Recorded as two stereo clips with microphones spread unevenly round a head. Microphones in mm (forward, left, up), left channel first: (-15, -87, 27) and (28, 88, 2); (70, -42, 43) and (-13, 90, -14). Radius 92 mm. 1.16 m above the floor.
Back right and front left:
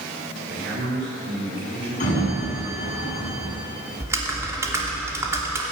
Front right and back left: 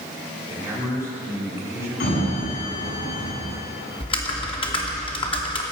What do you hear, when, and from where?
0.5 s a man speaking: 45° left, 10 m
2.0 s a sliding door: 55° right, 9.5 m
4.0 s typing on a keyboard: straight ahead, 3 m